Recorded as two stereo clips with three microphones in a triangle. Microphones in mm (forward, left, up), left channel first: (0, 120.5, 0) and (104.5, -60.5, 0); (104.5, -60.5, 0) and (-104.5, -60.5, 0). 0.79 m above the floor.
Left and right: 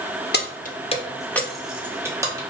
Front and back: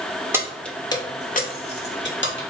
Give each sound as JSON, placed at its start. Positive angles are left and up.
{"t": 0.3, "sound": "keys jangling", "azimuth_deg": 105, "distance_m": 0.5}